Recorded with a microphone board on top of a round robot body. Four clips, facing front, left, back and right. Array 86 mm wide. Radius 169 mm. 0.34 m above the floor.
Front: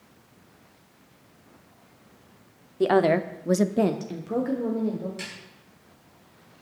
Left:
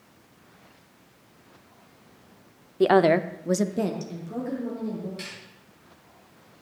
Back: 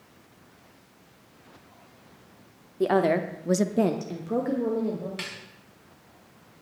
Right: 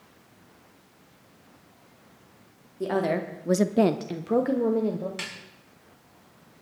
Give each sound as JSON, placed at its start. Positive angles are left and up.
{"t": 2.8, "sound": "a woman speaking", "azimuth_deg": 75, "distance_m": 1.2}
{"t": 5.2, "sound": "a snare drum", "azimuth_deg": -125, "distance_m": 5.0}